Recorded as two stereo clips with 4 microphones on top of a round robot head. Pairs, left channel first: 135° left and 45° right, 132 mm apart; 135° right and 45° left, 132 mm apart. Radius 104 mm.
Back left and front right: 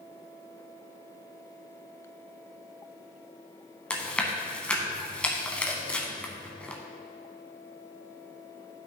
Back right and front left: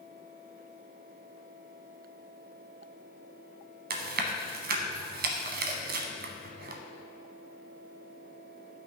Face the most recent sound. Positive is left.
turn(degrees=50)